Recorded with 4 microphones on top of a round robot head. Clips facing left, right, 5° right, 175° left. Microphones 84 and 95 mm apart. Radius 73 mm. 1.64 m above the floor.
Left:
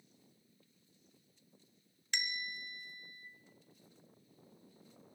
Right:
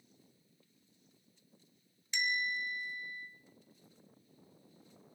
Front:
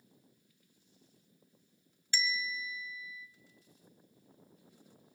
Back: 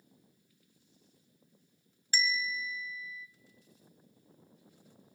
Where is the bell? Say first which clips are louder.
Right 7 dB, back 3 dB; 125° left, 1.0 m.